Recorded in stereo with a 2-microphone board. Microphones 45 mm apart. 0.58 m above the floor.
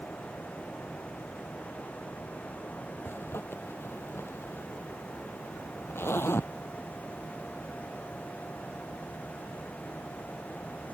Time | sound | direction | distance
3.0 | a zipper | 60° left (ahead or behind) | ?